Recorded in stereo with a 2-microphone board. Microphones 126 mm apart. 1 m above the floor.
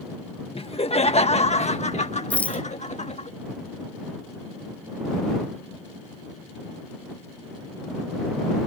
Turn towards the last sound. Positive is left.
turn(degrees=10)  # may be behind; listen again after turning